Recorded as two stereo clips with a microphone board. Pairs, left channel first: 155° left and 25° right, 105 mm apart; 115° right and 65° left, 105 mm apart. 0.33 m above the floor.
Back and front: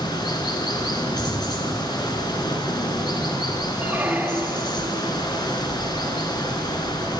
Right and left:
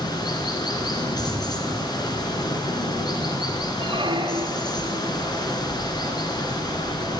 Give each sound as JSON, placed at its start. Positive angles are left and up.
{"t": 0.0, "sound": "running water", "azimuth_deg": -160, "distance_m": 1.8}
{"t": 1.2, "sound": "an explosion", "azimuth_deg": 115, "distance_m": 4.0}
{"t": 3.8, "sound": "a squeak", "azimuth_deg": 50, "distance_m": 1.1}